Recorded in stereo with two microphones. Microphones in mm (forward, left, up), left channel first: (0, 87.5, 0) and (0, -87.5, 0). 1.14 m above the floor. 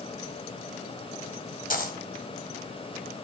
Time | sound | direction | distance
1.7 | a dropped coin | 50° left (ahead or behind) | 1.9 m